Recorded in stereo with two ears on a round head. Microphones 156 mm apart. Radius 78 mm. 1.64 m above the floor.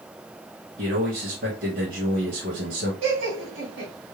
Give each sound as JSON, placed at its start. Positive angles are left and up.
{"t": 0.8, "sound": "a man speaking", "side_deg": -55, "distance_m": 1.8}
{"t": 3.0, "sound": "laughter", "side_deg": -85, "distance_m": 1.9}